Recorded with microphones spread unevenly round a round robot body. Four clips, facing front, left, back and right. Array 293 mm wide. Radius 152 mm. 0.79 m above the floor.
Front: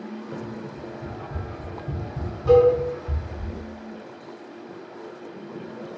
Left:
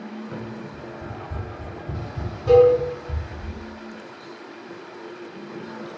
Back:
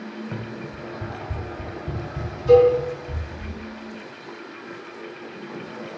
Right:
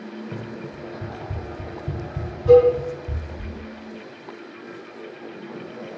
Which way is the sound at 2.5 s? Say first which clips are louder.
Right 1 dB, back 2 dB; 30° left.